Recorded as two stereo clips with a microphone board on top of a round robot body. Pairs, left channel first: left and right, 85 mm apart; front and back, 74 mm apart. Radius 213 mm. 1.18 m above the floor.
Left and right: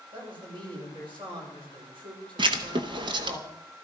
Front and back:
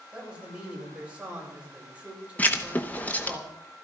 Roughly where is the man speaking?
Right.